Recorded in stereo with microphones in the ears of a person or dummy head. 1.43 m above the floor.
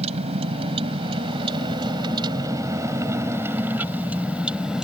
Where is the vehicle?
30° right (ahead or behind); by 4.8 s centre (ahead or behind).